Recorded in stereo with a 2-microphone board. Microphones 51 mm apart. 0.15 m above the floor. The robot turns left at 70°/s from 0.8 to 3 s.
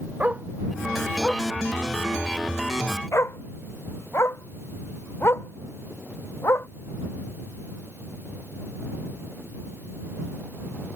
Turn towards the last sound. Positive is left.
turn(degrees=55)  # may be behind; listen again after turning